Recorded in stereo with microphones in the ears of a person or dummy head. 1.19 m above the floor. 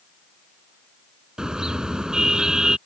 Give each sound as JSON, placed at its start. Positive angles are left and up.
{"t": 1.4, "sound": "a car horn", "side_deg": -5}